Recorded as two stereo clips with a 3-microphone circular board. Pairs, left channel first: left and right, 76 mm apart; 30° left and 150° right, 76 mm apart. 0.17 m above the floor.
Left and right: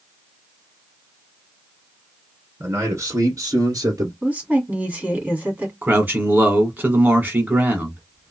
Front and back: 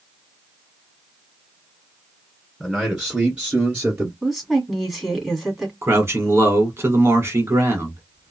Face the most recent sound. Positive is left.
turn(degrees=-135)